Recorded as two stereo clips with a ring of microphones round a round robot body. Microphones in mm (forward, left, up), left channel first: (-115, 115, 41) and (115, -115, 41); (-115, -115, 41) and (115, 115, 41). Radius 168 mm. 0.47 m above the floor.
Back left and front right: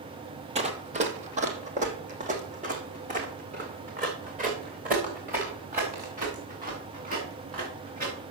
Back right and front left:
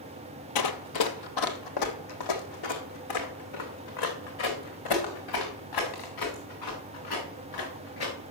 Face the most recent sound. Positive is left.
turn(degrees=-110)